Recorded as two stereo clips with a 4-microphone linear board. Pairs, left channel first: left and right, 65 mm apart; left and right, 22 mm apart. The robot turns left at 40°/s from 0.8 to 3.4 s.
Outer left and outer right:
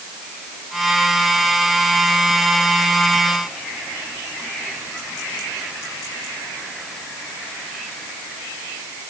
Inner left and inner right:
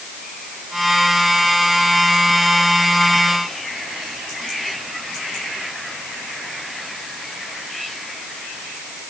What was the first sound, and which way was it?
Only background noise.